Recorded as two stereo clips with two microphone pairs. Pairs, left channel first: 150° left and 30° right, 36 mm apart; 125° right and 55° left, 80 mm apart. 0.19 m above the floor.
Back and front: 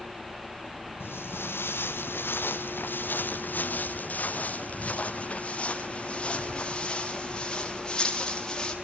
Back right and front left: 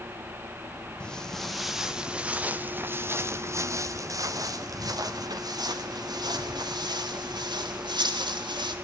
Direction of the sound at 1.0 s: 155° left.